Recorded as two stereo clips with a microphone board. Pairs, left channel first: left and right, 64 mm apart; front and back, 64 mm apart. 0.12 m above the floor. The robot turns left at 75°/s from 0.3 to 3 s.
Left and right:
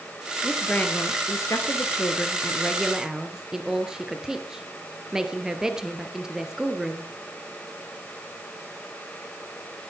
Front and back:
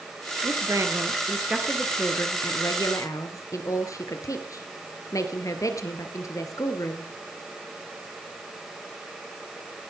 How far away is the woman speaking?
About 3 m.